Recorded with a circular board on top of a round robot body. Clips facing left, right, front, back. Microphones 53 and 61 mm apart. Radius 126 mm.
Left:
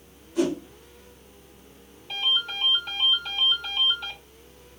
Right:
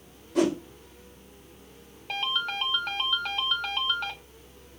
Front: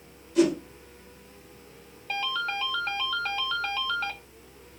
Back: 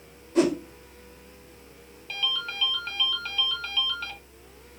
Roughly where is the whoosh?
Behind right.